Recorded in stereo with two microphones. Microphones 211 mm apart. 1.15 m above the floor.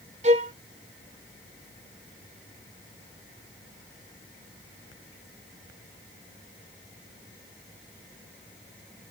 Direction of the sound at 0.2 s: 35° right (ahead or behind).